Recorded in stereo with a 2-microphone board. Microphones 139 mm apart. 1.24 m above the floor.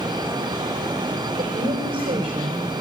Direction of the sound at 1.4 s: 70° right (ahead or behind).